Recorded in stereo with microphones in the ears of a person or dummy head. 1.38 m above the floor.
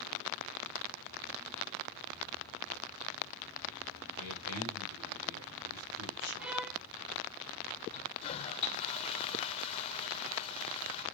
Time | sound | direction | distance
4.2 | a man speaking | 70° right (ahead or behind) | 6 m
6.4 | a violin | 10° right (ahead or behind) | 0.6 m
7.9 | a toilet flushing | 30° left (ahead or behind) | 1.7 m